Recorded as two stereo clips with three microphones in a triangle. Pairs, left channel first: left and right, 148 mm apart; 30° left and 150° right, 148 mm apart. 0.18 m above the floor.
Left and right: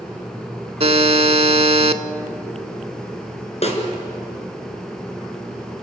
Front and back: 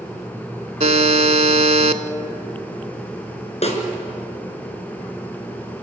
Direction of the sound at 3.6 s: 60° left.